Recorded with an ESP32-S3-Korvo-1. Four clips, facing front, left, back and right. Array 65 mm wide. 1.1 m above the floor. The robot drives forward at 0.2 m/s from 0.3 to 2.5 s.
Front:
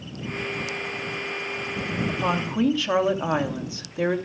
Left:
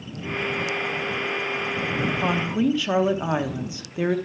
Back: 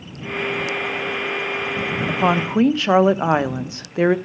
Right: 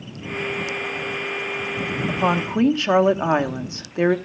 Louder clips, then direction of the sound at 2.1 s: Right 3 dB, back 8 dB; 155° right.